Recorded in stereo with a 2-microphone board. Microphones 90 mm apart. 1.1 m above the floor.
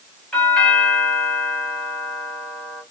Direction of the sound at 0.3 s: 10° left (ahead or behind).